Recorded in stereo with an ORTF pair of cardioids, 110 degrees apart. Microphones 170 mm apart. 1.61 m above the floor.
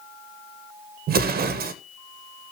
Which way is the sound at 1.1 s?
65° right.